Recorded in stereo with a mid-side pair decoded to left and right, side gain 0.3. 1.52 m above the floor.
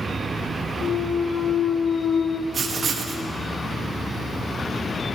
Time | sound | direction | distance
0.8 | a clunk | 60° left | 0.7 m
2.5 | writing | 65° right | 1.9 m